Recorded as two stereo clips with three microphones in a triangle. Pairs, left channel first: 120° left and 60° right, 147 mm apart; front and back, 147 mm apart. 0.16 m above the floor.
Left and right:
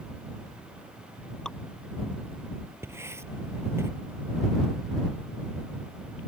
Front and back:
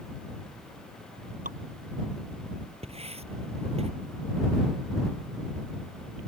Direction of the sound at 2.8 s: 135° right.